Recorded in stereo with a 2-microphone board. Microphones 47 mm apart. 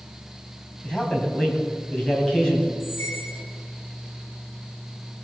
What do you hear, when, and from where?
0.8 s a man speaking: 20° left (ahead or behind), 3 m
2.8 s a squeak: 65° left (ahead or behind), 2.5 m